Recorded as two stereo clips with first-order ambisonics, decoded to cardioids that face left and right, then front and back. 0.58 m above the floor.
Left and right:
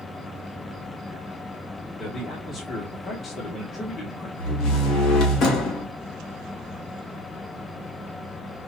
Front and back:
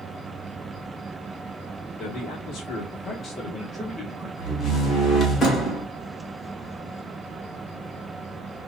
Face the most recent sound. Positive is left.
turn(degrees=60)